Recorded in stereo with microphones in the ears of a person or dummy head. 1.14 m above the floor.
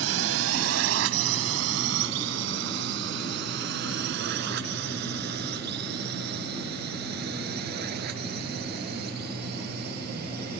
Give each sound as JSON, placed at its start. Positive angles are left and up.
{"t": 0.0, "sound": "a drone", "side_deg": -80}